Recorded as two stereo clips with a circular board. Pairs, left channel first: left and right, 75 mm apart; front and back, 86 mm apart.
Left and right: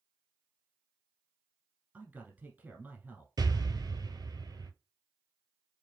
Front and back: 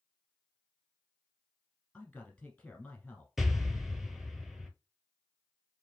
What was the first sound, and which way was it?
A man speaking, 60° right.